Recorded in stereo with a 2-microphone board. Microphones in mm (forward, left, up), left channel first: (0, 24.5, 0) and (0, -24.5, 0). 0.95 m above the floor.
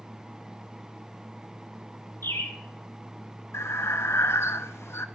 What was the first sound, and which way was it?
A bird, 70° left (ahead or behind).